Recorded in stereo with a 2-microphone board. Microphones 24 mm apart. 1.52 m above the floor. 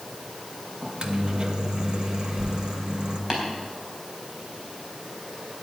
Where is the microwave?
35° right (ahead or behind), 1.2 m.